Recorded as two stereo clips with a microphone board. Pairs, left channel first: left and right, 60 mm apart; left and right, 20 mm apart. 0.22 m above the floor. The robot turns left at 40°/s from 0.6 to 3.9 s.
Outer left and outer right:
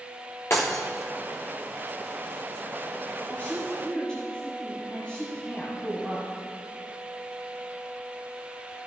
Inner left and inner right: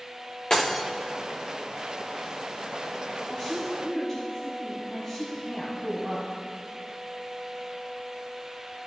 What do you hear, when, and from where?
0.5 s breaking glass: 45° left (ahead or behind), 2 m; by 0.8 s 55° left (ahead or behind), 2 m
3.3 s a woman speaking: 30° left (ahead or behind), 1.9 m; by 6.3 s 15° left (ahead or behind), 1.9 m